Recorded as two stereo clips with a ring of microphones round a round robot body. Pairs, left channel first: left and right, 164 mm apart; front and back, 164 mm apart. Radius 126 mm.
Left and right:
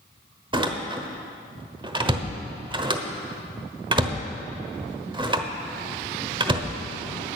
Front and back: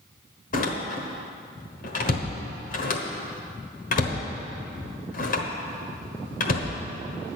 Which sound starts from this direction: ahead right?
A door slam, at 0.5 s.